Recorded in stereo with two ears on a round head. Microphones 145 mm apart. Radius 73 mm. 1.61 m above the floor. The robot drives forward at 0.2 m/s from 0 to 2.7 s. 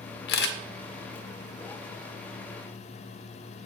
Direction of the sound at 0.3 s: 65° left (ahead or behind).